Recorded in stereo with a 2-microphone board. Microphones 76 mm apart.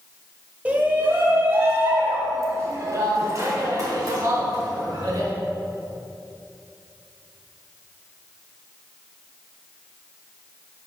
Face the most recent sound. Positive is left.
turn(degrees=-55)  # may be behind; listen again after turning